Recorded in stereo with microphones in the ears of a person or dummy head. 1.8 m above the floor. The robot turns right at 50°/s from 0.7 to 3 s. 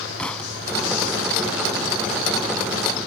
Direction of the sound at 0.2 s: 5° left (ahead or behind).